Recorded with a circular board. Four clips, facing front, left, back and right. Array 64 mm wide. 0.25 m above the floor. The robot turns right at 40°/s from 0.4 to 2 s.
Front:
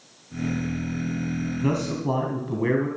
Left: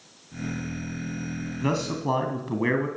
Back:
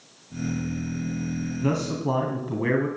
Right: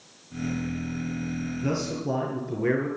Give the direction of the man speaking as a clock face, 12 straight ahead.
9 o'clock.